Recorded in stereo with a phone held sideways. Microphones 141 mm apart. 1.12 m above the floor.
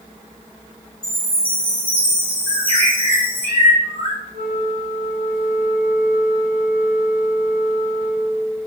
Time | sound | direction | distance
1.0 | a chime | 40° right (ahead or behind) | 3 m
2.5 | a bird | 45° right (ahead or behind) | 2.5 m
4.3 | a flute | 70° right (ahead or behind) | 1.6 m